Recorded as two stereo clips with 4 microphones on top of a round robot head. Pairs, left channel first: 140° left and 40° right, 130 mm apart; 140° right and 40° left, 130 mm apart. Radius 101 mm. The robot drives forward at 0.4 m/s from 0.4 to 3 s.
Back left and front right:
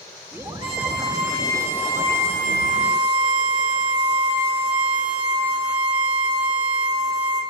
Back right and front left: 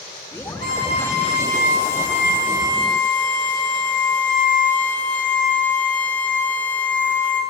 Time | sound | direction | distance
0.6 | a violin | 95° right | 1.9 m